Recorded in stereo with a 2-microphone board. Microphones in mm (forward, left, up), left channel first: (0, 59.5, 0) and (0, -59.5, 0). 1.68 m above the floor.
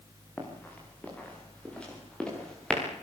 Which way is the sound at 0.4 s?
15° left (ahead or behind).